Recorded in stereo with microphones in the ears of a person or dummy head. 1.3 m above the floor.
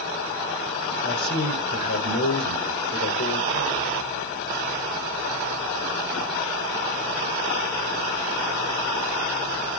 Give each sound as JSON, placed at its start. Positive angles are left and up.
{"t": 1.0, "sound": "a man speaking", "side_deg": 50, "distance_m": 4.5}